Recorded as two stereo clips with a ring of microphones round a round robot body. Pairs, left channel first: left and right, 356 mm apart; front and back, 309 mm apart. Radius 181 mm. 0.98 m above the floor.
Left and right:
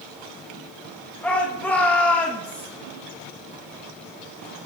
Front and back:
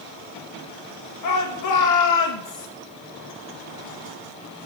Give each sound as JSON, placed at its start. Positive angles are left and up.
{"t": 1.2, "sound": "a shout", "azimuth_deg": 5, "distance_m": 1.7}